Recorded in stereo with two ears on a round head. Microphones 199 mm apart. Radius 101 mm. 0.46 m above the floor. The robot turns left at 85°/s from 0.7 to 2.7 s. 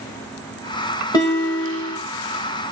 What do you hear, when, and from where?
1.1 s a guitar: 160° left, 0.8 m; by 2.0 s 90° left, 0.8 m